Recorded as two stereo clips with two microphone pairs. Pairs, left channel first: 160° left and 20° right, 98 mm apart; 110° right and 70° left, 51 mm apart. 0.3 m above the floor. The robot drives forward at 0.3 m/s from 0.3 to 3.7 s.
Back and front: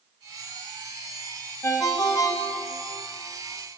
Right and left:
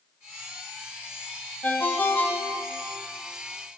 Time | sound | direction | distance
1.6 | a ringtone | 155° right | 1.0 m